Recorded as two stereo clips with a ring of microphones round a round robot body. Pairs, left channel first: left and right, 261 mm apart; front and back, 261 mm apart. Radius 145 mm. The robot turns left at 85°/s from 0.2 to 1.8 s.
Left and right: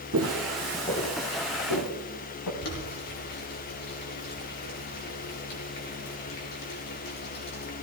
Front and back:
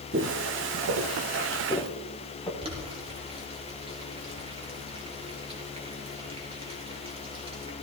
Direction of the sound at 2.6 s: 110° left.